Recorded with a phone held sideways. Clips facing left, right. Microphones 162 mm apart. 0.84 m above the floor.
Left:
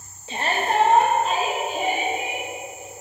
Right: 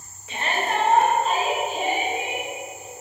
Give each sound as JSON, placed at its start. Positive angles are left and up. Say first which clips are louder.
{"t": 0.3, "sound": "a shout", "louder": "left 2 dB", "side_deg": 30, "distance_m": 0.7}